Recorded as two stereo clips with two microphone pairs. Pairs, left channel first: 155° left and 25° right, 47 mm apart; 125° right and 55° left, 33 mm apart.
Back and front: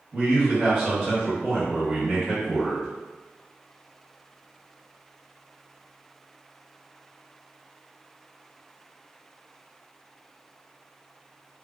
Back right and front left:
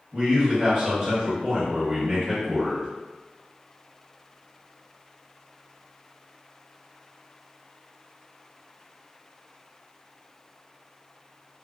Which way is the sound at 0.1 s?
5° left.